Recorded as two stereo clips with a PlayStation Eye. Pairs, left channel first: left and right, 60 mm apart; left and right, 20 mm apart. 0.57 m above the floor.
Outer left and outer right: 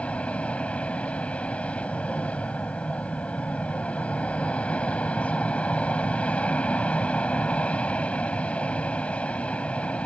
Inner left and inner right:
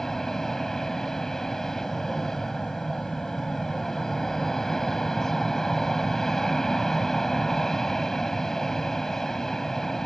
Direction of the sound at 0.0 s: 20° left (ahead or behind).